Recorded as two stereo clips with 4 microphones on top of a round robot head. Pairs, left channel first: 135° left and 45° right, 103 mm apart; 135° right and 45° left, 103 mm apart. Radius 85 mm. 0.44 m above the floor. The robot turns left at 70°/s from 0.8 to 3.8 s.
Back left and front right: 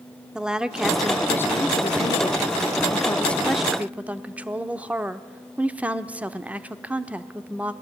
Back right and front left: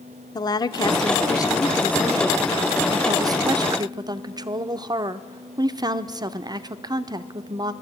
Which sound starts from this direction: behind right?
A woman speaking, at 0.3 s.